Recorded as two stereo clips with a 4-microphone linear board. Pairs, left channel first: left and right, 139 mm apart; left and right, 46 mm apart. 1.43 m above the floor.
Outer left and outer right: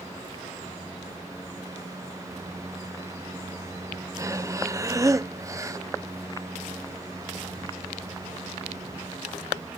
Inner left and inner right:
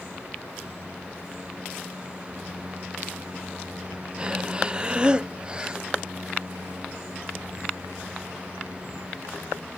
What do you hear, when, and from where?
4.2 s breathing: 20° right (ahead or behind)